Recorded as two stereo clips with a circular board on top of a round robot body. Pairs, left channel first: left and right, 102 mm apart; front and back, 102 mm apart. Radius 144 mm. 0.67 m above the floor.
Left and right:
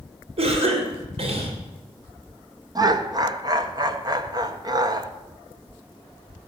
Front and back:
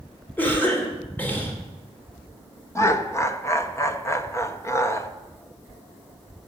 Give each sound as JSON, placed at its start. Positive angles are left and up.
{"t": 0.4, "sound": "a cough", "azimuth_deg": -75, "distance_m": 2.5}
{"t": 2.8, "sound": "laughter", "azimuth_deg": -55, "distance_m": 1.3}